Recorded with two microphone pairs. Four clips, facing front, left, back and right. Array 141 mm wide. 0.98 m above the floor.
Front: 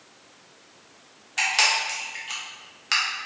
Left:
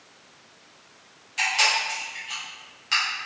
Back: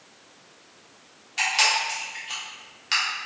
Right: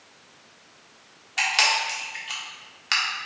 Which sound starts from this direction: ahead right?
A camera shutter, at 1.4 s.